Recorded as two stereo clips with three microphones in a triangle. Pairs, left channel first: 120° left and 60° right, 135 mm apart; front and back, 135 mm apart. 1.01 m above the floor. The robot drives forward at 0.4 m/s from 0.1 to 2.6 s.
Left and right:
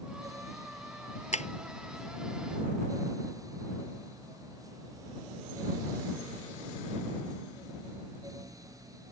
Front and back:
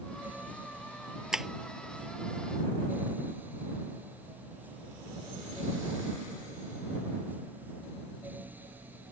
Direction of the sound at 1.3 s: 95° left.